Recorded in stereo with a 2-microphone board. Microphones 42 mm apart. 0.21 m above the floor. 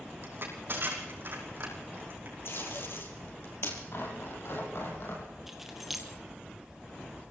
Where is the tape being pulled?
65° left (ahead or behind), 4 m.